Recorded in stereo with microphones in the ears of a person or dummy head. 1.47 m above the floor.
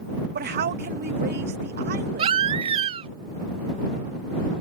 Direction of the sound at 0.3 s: 50° right (ahead or behind).